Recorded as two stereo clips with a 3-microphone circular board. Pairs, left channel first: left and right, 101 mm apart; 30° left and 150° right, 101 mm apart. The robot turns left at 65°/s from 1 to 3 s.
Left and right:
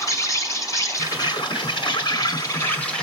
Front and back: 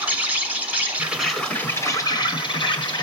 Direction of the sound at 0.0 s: 135° left.